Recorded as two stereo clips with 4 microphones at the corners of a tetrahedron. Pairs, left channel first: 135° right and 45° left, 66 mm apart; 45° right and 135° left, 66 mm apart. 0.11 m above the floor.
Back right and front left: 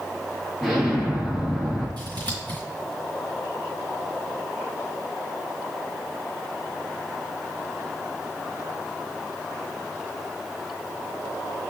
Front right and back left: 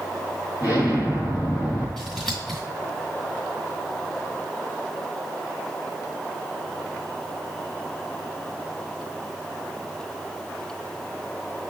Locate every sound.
0.6 s an explosion: 50° right, 1.5 m
2.0 s scissors: 40° left, 1.6 m